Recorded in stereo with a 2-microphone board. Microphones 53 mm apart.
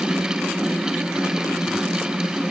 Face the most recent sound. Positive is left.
No sound to turn to.